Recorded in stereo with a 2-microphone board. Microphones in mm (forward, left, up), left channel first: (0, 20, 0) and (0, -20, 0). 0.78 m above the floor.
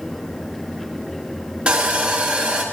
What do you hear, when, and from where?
1.7 s sawing: 25° right (ahead or behind), 1.7 m